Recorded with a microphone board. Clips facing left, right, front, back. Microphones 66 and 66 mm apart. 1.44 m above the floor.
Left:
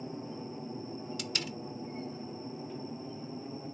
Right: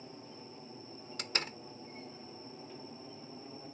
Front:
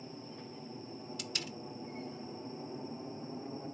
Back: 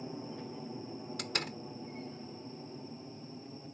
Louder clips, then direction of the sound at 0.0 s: Left 9 dB, back 5 dB; 130° left.